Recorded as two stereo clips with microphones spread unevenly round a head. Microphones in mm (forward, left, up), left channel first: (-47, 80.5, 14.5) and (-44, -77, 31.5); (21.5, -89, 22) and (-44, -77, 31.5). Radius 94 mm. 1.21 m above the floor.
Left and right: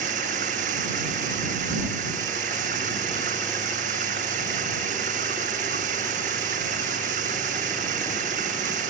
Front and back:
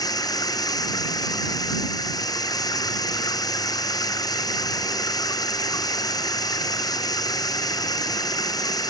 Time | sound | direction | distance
0.0 | running water | 35° right | ?